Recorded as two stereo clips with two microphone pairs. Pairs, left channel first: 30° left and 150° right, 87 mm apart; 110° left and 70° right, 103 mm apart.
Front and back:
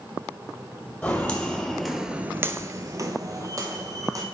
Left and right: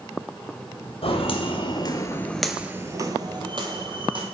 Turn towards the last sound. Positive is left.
turn(degrees=-100)